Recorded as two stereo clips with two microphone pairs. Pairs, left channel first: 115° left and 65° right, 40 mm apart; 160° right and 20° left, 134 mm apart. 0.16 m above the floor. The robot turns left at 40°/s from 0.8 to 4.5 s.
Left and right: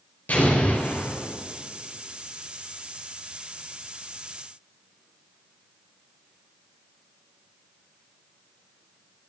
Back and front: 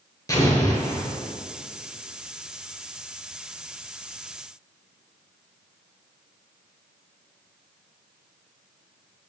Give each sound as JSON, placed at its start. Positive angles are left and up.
{"t": 0.3, "sound": "an explosion", "azimuth_deg": 140, "distance_m": 3.5}